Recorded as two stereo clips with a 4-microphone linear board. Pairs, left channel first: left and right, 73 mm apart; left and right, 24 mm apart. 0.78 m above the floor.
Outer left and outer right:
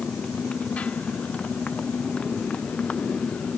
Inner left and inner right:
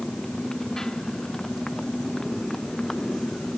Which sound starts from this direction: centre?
A motorcycle, at 0.0 s.